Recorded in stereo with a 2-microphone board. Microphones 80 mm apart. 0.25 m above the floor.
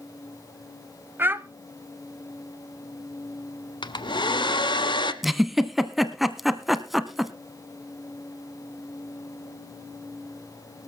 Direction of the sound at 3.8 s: 75° left (ahead or behind).